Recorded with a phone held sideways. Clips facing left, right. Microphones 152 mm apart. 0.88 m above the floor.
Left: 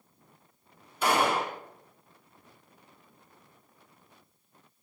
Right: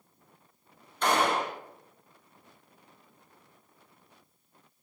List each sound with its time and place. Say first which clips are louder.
1.0 s a gunshot: even; 10° left (ahead or behind), 0.7 m